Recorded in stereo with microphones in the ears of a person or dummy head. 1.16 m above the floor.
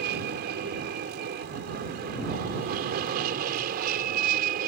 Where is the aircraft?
55° right (ahead or behind); by 4.7 s 50° right (ahead or behind).